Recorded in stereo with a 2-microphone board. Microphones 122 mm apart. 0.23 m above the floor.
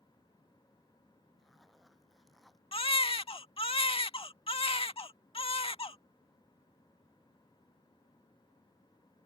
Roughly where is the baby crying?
Left.